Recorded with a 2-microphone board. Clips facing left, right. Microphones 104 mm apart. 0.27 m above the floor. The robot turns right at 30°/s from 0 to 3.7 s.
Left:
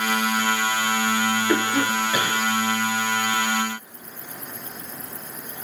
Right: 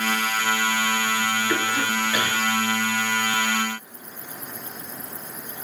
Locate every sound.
1.5 s a cough: 35° left (ahead or behind), 1.4 m; by 2.4 s 15° left (ahead or behind), 1.4 m